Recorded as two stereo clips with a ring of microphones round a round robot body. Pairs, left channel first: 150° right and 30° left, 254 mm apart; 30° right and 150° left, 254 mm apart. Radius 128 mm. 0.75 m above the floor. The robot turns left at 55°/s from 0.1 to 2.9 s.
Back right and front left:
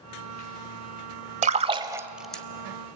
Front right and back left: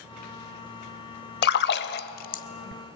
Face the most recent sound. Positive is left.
turn(degrees=-95)